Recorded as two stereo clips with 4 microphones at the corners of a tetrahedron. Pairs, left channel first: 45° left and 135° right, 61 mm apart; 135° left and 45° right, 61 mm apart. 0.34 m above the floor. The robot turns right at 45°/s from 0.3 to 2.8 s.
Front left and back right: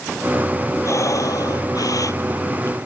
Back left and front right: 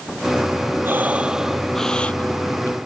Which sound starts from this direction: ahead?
Breathing, at 0.8 s.